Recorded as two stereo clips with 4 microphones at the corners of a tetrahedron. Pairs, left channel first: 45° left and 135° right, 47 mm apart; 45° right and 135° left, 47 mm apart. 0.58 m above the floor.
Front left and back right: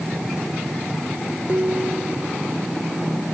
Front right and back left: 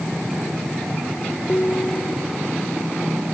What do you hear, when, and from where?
1.5 s dishes clattering: 100° right